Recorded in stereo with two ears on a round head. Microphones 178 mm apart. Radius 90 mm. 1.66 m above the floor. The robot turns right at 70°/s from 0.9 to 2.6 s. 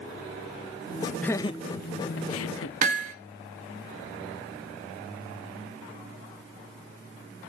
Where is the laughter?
5° left (ahead or behind), 0.7 m; by 2.7 s 80° left, 0.7 m.